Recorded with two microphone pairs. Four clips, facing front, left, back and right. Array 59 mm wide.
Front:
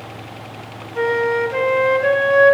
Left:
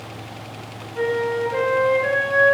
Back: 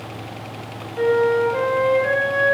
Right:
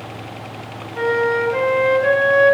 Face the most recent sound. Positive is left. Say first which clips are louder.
# right 4 dB, back 1 dB
turn(degrees=-30)